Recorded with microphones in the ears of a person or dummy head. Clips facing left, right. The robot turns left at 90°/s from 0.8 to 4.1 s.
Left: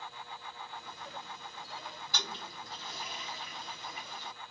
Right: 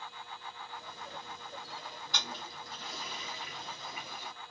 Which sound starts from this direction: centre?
A toilet flushing, at 2.1 s.